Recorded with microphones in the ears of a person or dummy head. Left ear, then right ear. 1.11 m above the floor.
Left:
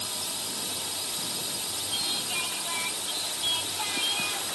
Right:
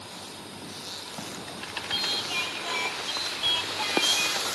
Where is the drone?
45° left (ahead or behind).